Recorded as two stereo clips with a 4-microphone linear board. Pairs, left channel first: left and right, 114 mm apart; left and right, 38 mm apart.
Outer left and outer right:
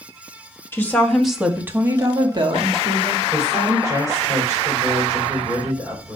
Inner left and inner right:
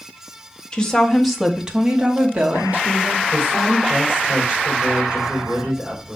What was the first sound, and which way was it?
A woman speaking, 20° left (ahead or behind).